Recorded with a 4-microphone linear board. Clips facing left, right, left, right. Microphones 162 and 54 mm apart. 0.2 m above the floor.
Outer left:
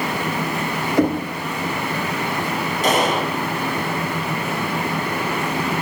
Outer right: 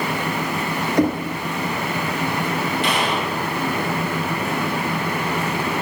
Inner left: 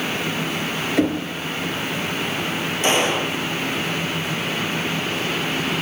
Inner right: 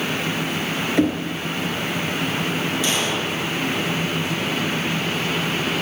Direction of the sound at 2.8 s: 45° left (ahead or behind).